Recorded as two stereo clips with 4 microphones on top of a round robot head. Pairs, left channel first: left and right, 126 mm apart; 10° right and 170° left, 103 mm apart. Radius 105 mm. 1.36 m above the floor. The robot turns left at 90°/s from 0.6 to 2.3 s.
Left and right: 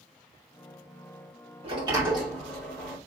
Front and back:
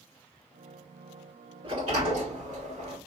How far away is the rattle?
No rattle in this recording.